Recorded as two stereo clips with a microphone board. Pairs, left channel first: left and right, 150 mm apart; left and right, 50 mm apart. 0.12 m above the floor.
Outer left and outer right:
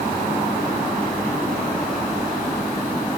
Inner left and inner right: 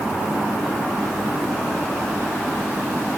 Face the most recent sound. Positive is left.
No sound to turn to.